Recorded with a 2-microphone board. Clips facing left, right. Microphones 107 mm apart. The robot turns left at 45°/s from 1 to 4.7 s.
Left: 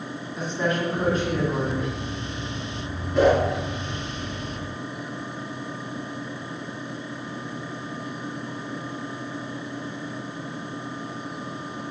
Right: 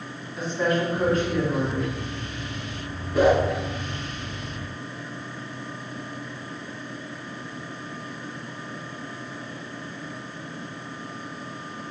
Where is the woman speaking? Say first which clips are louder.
Right 2 dB; straight behind, 1.6 m; by 1.9 s 140° left, 1.6 m.